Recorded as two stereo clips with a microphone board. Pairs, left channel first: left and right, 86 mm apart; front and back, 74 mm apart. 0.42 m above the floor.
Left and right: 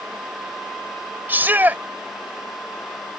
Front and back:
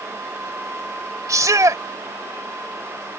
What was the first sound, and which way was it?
A shout, 155° right.